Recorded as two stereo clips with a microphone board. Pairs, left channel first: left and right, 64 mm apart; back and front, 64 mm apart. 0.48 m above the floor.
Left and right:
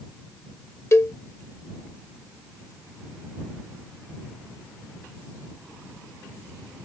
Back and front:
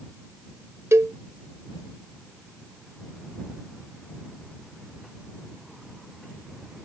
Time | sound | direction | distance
0.9 | a cowbell | 45° left | ?